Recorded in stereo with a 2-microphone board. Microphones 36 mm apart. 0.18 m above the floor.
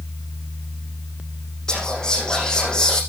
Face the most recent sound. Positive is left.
turn(degrees=20)  # may be behind; listen again after turning